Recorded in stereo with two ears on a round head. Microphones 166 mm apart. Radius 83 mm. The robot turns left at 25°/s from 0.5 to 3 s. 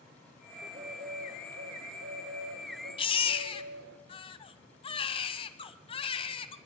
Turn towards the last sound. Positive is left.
turn(degrees=30)  # may be behind; listen again after turning